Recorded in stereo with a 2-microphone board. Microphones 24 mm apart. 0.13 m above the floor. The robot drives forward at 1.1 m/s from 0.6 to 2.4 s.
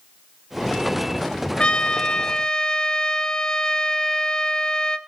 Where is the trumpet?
45° left (ahead or behind), 1.0 m; by 5.0 s 35° left (ahead or behind), 1.3 m.